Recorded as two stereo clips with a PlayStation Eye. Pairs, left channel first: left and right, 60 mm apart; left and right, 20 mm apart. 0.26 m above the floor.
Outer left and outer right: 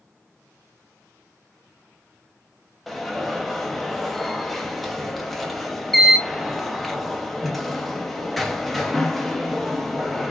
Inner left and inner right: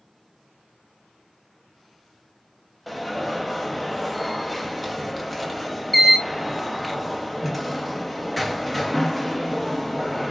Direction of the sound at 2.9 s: Centre (ahead or behind).